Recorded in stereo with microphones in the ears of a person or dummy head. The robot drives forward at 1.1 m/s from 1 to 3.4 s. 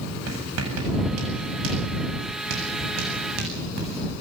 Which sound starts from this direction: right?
Writing, at 0.3 s.